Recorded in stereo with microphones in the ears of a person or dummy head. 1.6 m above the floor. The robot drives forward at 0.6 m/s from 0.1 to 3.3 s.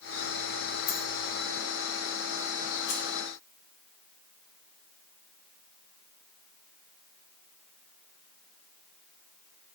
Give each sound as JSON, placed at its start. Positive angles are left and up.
{"t": 0.9, "sound": "a dropped coin", "side_deg": 50, "distance_m": 2.0}
{"t": 2.9, "sound": "keys jangling", "side_deg": 40, "distance_m": 2.5}